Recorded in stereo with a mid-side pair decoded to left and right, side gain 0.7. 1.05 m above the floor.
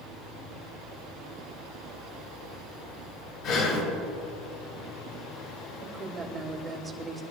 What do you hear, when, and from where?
3.4 s breathing: 50° left, 6 m
5.8 s a woman speaking: 20° right, 4.5 m